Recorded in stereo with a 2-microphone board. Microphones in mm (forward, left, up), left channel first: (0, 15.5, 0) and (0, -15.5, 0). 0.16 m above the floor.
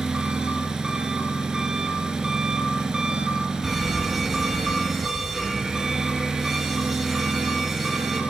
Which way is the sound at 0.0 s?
25° right (ahead or behind).